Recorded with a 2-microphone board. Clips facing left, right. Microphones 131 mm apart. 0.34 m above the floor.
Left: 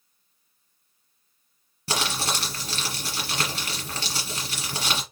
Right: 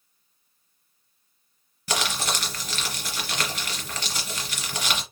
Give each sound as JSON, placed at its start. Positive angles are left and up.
{"t": 1.9, "sound": "crumpling", "side_deg": 30, "distance_m": 2.5}